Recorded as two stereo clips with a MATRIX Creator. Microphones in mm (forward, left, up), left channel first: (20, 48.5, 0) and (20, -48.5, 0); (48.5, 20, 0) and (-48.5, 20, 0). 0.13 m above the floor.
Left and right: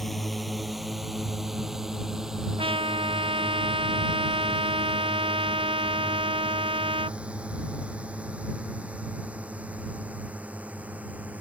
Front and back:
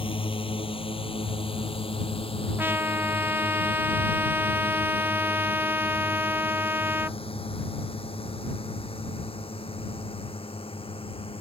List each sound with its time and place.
0.0 s a drone: straight ahead; by 11.4 s 15° right
2.6 s a trumpet: 110° right